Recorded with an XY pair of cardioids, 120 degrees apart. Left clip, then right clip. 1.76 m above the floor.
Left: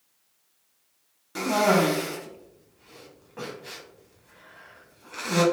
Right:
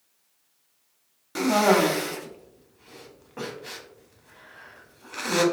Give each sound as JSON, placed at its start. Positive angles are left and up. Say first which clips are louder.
{"t": 1.4, "sound": "a cough", "louder": "right 2 dB", "azimuth_deg": -20, "distance_m": 0.8}